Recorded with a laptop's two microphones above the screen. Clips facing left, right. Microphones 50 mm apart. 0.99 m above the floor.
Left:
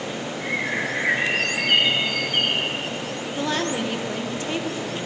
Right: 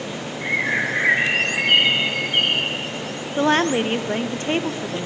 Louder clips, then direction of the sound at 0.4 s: Right 5 dB; 30° right (ahead or behind).